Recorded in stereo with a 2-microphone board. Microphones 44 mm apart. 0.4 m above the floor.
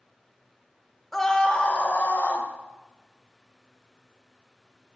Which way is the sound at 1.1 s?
5° left (ahead or behind).